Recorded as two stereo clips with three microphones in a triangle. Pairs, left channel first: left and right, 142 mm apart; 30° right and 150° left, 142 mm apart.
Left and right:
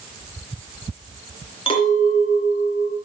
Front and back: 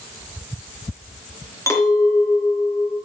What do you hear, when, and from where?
1.7 s a clink: 40° left, 3 m